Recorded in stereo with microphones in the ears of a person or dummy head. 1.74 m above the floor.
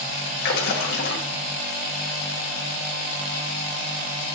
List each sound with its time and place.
0.4 s a splash: 65° left (ahead or behind), 1.4 m